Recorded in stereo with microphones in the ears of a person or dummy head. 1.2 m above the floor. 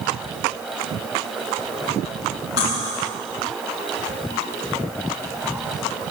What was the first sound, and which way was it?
Cutlery clinking, 60° left (ahead or behind).